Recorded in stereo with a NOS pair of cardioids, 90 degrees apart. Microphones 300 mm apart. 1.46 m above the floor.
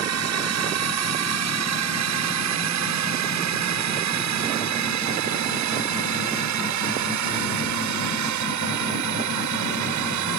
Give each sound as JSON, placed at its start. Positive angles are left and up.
{"t": 0.0, "sound": "a drone", "azimuth_deg": -60}